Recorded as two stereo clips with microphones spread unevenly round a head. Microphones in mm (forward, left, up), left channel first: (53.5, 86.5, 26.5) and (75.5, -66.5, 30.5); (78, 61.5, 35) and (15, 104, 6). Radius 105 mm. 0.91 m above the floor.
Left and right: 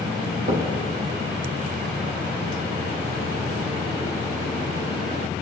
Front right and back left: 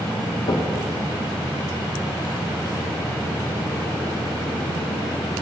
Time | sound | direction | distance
0.5 | knocking | 45° right | 1.4 m